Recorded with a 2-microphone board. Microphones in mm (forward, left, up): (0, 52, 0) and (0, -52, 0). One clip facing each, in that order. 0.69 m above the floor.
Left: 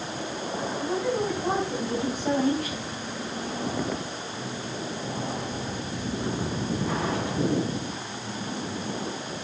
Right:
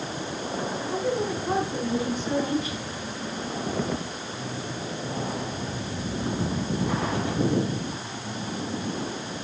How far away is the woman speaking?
About 7 m.